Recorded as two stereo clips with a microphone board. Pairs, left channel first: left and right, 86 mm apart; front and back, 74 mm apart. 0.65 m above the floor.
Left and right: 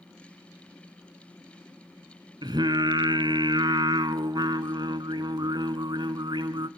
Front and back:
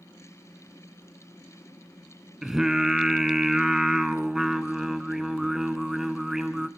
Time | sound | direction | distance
2.4 | singing | 100° right | 1.0 m